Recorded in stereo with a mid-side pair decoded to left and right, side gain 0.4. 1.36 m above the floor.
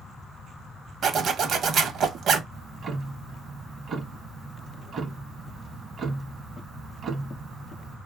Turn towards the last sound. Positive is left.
turn(degrees=-60)